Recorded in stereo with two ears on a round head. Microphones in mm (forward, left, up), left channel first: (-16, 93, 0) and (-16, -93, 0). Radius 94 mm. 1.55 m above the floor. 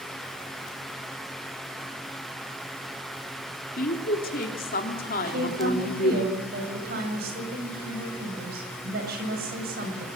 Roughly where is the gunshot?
I don't hear a gunshot.